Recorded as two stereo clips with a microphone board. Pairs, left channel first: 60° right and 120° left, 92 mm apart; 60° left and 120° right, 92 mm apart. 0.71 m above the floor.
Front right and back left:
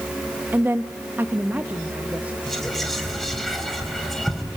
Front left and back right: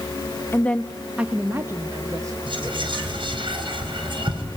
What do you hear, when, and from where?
0.5 s a woman speaking: 80° left, 0.9 m; by 2.4 s 165° right, 1.8 m
2.5 s whispering: 145° right, 4 m